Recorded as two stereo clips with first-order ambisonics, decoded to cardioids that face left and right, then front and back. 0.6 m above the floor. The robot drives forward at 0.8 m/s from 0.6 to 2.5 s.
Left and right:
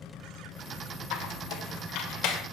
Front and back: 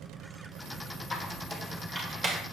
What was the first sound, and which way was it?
A squeak, 75° left.